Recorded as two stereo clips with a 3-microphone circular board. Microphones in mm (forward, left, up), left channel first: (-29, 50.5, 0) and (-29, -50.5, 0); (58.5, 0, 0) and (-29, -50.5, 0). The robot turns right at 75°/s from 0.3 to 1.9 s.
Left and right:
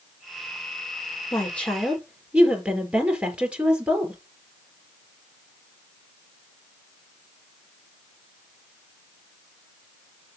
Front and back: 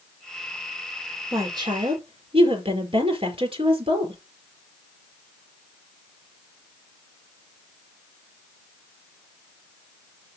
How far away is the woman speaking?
About 4.5 m.